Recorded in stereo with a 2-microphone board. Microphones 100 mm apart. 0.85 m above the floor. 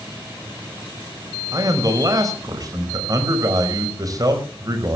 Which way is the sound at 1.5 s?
40° right (ahead or behind).